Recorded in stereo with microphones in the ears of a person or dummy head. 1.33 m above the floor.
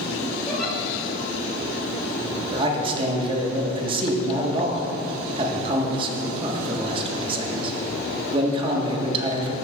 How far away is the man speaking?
About 1.6 m.